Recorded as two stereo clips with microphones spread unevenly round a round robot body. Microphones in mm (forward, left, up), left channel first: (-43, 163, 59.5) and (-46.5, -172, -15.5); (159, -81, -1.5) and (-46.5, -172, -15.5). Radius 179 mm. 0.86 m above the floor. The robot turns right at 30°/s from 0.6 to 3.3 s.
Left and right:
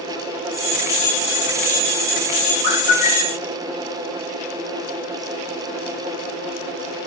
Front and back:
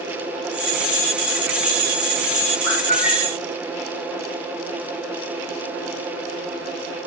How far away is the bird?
About 1.2 m.